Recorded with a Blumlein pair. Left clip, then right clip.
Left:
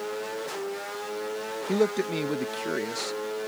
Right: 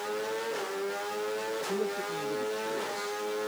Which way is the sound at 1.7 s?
30° left.